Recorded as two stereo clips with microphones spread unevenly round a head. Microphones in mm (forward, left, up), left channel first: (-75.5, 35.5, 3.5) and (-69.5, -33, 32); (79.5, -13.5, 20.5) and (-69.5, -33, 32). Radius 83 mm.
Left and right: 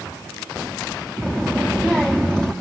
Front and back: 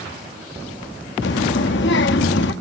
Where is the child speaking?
Straight ahead, 1.5 m.